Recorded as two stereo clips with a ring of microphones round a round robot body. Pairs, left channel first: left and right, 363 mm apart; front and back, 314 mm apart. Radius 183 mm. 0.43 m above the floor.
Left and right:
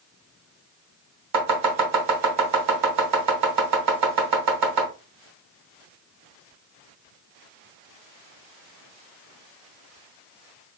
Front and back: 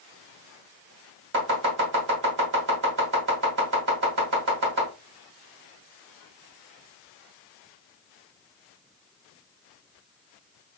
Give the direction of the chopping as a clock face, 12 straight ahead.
4 o'clock.